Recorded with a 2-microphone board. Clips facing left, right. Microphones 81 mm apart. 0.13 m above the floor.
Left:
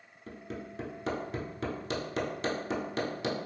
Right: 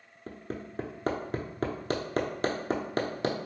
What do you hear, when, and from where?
0.3 s hammering: 50° right (ahead or behind), 0.6 m